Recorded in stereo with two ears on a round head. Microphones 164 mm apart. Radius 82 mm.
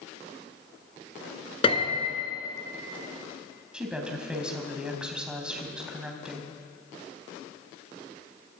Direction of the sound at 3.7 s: 5° right (ahead or behind).